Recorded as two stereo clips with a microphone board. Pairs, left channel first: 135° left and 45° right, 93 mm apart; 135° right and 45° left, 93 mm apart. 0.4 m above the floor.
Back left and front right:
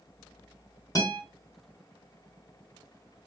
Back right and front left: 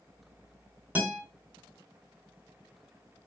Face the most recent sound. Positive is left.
turn(degrees=110)